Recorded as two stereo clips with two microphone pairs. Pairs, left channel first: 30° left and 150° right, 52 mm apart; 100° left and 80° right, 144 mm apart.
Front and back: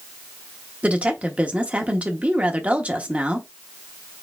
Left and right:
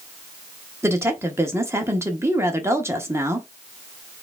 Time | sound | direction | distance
0.8 | a woman speaking | 130° right | 0.8 m